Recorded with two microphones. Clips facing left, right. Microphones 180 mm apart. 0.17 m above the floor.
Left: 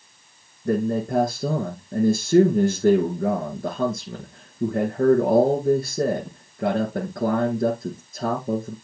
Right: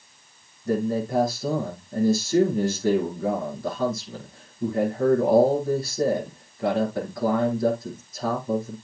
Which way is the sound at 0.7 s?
50° left (ahead or behind).